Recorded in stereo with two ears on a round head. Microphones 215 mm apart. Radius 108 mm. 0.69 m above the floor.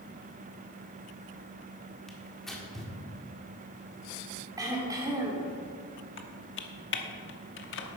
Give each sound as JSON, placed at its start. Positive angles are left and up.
{"t": 2.1, "sound": "tearing paper", "side_deg": 0, "distance_m": 1.7}
{"t": 4.6, "sound": "throat clearing", "side_deg": -15, "distance_m": 1.8}
{"t": 6.2, "sound": "typing on a keyboard", "side_deg": 55, "distance_m": 1.1}